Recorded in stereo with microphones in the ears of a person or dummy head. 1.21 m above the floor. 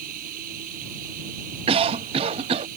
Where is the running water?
50° right (ahead or behind).